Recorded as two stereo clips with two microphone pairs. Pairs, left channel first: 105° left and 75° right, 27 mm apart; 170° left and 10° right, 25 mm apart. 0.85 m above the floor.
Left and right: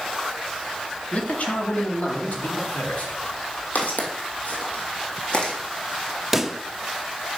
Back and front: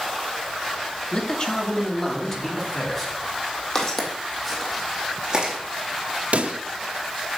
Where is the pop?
10° left, 0.5 m.